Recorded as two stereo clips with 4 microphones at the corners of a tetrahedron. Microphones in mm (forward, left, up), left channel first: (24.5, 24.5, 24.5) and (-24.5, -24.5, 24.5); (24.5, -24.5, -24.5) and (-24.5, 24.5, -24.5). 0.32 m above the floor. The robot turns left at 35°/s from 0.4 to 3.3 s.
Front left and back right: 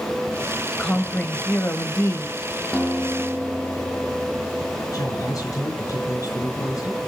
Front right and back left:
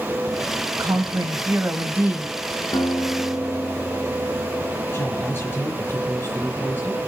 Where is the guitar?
35° right, 1.7 m; by 4.8 s 55° right, 1.7 m.